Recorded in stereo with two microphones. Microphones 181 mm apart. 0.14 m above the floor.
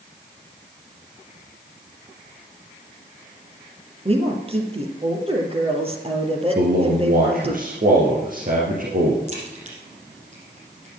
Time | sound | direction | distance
4.0 | a woman speaking | 35° right (ahead or behind) | 3 m
6.5 | a man speaking | 55° right (ahead or behind) | 2.5 m
9.3 | a crack | 40° right (ahead or behind) | 5.5 m